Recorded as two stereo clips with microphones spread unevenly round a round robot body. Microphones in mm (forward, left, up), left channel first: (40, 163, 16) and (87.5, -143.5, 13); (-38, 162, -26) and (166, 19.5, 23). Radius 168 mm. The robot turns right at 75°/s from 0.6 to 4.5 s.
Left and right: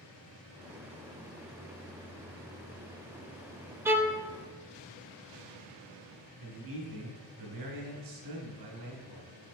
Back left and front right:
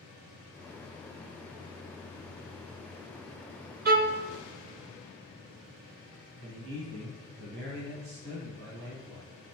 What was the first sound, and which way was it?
A violin, 10° right.